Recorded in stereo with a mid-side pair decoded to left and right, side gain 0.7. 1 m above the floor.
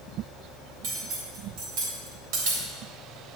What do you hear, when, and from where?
0.8 s cutlery clinking: 65° right, 3 m